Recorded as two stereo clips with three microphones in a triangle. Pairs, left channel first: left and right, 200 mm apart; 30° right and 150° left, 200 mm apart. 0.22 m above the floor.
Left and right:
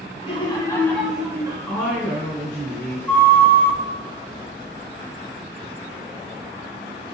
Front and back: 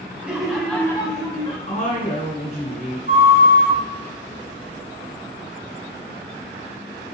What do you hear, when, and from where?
0.2 s laughter: 75° left, 1.2 m; by 1.6 s 40° right, 1.1 m
1.7 s a woman speaking: 5° left, 2.0 m
3.1 s a flute: 170° left, 1.1 m